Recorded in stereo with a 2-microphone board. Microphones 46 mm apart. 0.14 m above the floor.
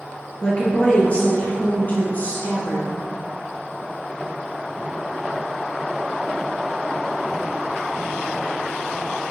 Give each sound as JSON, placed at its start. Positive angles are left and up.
{"t": 0.4, "sound": "a woman speaking", "side_deg": 20, "distance_m": 2.5}